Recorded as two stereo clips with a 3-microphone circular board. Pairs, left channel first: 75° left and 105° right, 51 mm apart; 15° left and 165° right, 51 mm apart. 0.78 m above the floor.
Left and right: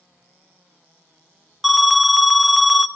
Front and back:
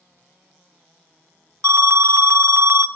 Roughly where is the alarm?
Behind.